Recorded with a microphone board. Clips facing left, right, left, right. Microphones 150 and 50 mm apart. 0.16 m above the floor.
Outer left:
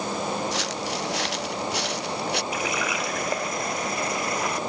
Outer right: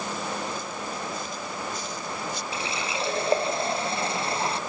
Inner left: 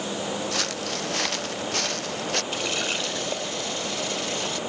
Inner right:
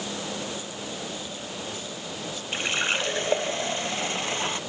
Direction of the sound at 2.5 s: 30° right (ahead or behind).